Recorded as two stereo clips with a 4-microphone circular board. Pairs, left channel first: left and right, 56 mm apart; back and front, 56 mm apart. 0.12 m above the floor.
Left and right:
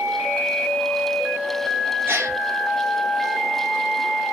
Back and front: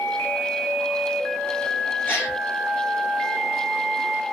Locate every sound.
2.1 s a gasp: 130° right, 3.5 m